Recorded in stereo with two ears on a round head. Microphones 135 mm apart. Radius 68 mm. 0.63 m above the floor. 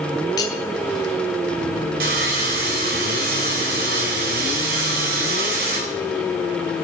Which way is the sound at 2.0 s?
70° right (ahead or behind).